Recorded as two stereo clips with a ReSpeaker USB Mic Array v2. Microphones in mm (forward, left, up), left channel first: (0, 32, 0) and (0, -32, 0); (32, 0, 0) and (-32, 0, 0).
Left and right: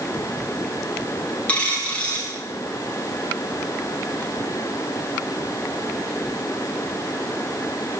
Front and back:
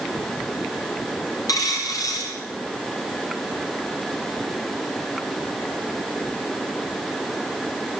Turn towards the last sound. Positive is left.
turn(degrees=20)